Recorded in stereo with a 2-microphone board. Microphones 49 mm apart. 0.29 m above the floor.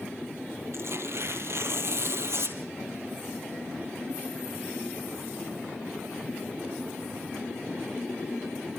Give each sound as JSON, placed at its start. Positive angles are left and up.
{"t": 0.7, "sound": "tearing paper", "side_deg": -60, "distance_m": 2.0}